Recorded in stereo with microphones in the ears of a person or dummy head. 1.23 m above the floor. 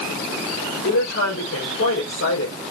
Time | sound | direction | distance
0.8 | a woman speaking | 85° left | 4 m